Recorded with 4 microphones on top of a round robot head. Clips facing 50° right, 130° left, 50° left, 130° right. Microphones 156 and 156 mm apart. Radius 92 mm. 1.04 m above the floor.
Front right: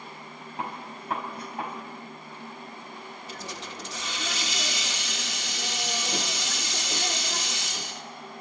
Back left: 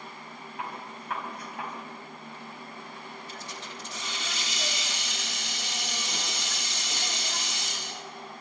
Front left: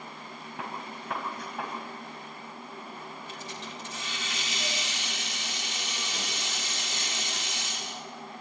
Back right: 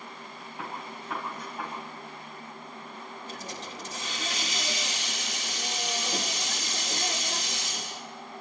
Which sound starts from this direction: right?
A hiss, at 3.3 s.